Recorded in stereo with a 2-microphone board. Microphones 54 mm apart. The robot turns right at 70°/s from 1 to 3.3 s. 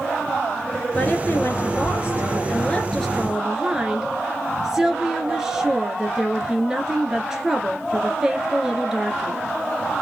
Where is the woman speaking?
35° left, 1.8 m; by 9.4 s 165° right, 1.8 m.